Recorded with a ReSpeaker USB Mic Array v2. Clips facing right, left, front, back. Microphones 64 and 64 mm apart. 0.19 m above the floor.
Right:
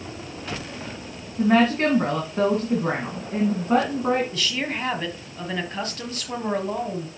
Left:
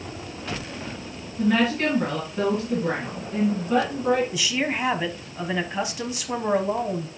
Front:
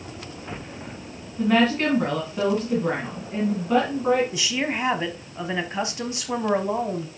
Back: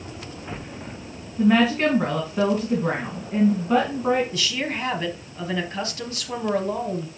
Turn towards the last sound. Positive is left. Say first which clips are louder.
# left 2 dB, front 1 dB
turn(degrees=35)